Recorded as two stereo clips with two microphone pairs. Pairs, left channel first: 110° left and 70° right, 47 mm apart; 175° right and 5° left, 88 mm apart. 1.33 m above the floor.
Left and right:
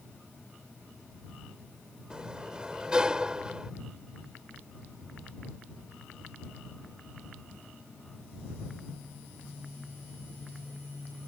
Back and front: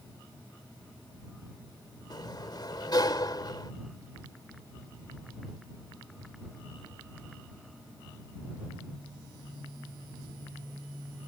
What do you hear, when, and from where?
2.1 s a sliding door: 145° right